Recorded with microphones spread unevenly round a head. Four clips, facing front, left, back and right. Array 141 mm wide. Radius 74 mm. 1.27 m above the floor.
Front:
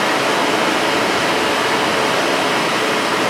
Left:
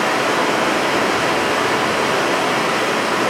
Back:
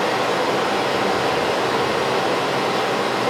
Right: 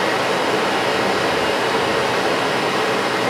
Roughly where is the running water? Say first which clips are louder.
Left 1 dB, front 3 dB; ahead left.